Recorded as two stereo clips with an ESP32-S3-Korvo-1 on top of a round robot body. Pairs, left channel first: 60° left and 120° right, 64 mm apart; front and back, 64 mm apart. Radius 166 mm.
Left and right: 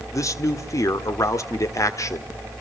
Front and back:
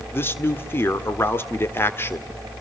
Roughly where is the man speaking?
Ahead left.